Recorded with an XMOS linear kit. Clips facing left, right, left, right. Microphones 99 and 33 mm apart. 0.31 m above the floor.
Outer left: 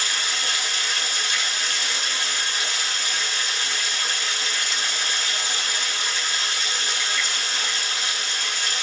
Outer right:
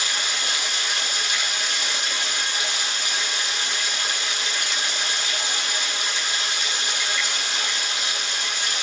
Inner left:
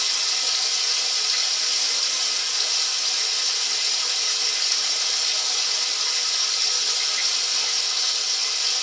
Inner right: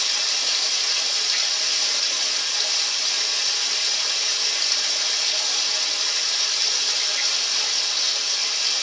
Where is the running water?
20° right (ahead or behind), 2 m.